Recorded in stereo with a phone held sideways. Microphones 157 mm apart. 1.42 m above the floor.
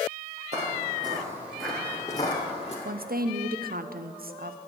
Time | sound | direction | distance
0.5 | footsteps | 45° right (ahead or behind) | 2 m
2.9 | a woman speaking | 70° right (ahead or behind) | 0.6 m